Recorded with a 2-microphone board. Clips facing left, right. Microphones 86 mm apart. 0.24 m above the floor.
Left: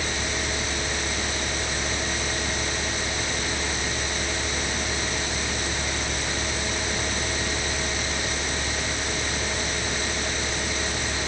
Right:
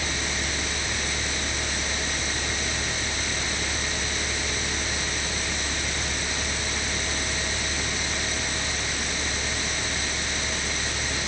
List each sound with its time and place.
Only background noise.